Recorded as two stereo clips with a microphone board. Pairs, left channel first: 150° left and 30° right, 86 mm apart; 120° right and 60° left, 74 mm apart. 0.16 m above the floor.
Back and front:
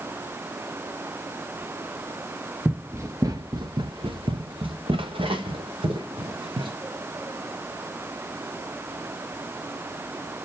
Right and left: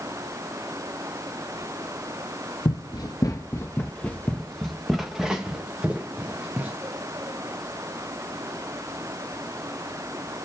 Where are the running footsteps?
100° right, 1.0 m; by 6.7 s 10° right, 2.5 m.